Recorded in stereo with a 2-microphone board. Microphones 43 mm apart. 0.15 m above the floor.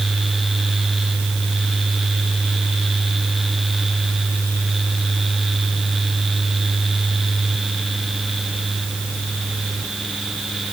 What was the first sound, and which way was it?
Only background noise.